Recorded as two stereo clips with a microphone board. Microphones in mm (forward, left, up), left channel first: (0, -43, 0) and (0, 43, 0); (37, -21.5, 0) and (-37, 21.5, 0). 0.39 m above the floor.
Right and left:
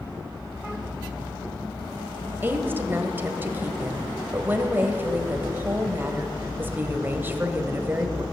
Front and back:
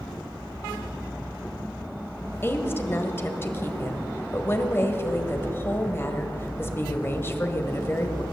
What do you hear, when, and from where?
2.4 s a woman speaking: 30° left, 1.4 m